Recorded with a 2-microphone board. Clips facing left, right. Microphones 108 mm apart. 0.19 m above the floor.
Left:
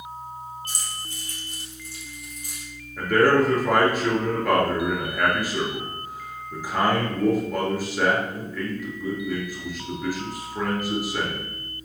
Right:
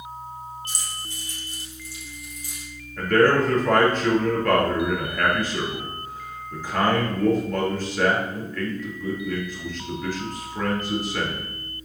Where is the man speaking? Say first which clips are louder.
Even; 10° left (ahead or behind), 3.5 m.